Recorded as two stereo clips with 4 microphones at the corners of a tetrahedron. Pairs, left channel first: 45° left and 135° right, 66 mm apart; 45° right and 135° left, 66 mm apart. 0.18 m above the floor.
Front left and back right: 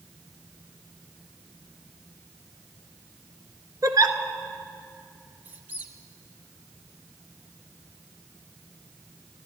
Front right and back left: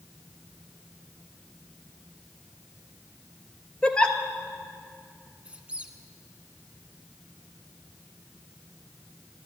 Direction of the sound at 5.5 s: 175° right.